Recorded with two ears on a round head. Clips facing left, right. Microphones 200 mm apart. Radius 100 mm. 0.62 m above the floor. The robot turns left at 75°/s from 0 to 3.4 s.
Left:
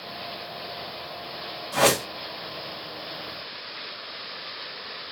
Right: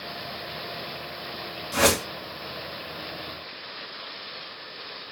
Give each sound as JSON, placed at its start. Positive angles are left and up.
{"t": 1.7, "sound": "a whoosh", "side_deg": -30, "distance_m": 1.6}